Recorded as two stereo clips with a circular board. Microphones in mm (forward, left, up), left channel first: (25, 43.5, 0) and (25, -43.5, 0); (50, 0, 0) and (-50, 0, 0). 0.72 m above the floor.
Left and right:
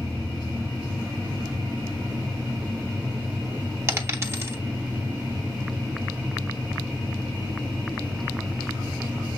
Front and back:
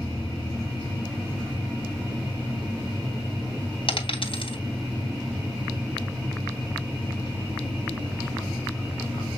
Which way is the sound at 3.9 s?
30° right.